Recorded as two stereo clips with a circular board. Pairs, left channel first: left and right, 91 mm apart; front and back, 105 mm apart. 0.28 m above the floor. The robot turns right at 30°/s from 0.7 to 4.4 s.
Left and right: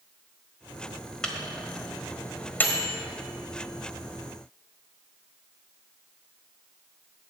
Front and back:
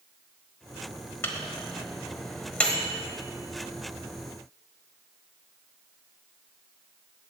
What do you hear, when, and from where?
1.2 s a microwave: 20° left, 1.3 m; by 2.9 s 75° left, 1.3 m